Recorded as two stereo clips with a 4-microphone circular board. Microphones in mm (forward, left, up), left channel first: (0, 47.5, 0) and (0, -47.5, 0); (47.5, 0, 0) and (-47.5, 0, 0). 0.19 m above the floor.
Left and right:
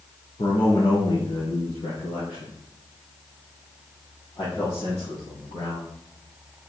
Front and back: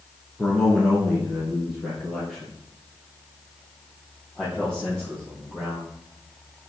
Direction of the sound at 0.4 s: 90° left.